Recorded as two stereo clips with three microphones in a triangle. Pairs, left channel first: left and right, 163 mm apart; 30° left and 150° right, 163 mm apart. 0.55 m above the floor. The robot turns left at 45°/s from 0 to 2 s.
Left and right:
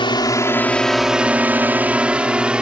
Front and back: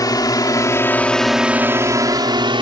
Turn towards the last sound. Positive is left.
turn(degrees=-170)